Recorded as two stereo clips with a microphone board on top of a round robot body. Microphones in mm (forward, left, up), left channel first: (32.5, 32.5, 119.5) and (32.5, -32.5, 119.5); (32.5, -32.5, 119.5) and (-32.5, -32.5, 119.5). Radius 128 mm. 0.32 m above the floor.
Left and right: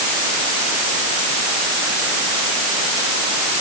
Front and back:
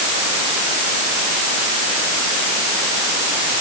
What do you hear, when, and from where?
Only background noise.